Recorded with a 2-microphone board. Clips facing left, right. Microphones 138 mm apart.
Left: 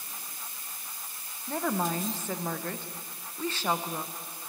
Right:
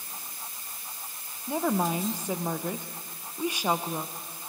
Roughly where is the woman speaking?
Centre.